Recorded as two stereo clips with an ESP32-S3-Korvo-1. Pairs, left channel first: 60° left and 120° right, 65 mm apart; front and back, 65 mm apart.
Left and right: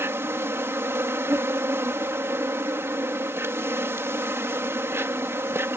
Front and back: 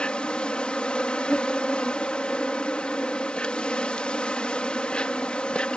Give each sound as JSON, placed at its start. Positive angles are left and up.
{"t": 0.0, "sound": "an insect", "azimuth_deg": -75}